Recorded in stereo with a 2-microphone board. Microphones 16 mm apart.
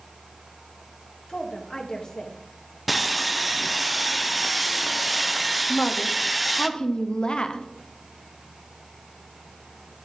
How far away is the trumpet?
I don't hear a trumpet.